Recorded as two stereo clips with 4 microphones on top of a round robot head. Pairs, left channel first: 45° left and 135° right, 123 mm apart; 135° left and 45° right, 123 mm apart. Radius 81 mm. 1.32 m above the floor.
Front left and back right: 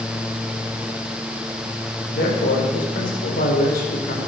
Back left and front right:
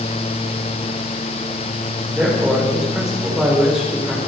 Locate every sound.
2.1 s a man speaking: 45° left, 4 m